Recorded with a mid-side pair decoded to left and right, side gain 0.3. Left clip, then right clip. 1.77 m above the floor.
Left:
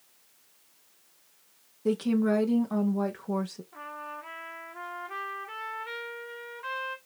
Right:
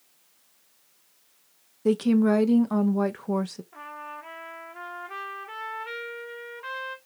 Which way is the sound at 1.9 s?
50° right.